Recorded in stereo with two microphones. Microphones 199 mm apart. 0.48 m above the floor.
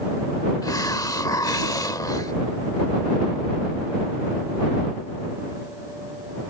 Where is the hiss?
20° left (ahead or behind).